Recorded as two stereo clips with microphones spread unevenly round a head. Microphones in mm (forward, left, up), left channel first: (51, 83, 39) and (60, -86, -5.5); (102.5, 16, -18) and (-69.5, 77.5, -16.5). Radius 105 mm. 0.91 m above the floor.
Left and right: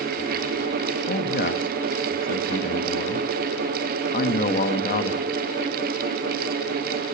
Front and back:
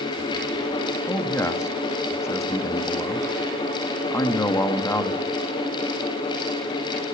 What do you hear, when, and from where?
1.1 s a man speaking: 55° left, 1.3 m